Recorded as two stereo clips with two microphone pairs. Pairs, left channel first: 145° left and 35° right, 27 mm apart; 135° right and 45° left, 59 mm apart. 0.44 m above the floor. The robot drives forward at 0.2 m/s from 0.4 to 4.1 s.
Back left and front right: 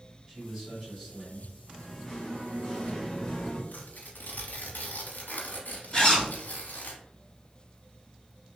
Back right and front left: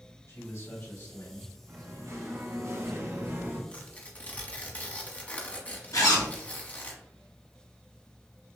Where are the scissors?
No scissors in this recording.